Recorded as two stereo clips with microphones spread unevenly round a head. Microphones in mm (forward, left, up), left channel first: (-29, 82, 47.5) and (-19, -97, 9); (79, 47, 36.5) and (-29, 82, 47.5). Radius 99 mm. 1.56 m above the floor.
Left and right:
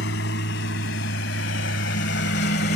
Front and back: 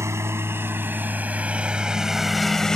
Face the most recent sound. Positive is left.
turn(degrees=70)